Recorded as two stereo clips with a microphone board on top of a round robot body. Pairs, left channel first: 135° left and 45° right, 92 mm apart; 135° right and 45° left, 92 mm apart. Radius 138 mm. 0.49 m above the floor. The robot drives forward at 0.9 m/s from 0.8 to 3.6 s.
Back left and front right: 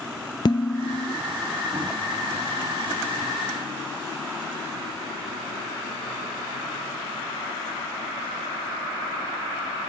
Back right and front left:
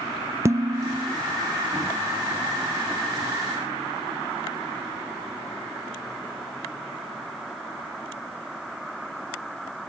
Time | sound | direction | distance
0.5 | dishes clattering | 100° left | 0.6 m